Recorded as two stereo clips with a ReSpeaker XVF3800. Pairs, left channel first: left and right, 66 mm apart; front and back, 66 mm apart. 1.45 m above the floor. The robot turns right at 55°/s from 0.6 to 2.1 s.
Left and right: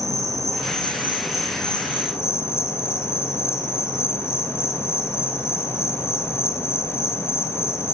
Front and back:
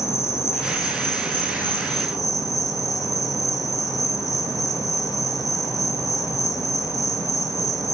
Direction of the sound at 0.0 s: 45° right.